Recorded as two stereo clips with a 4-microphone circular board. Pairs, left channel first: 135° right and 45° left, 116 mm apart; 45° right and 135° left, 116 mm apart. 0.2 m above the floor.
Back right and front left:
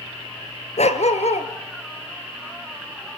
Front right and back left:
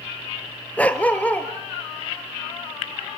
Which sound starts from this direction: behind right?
A dog barking, at 0.8 s.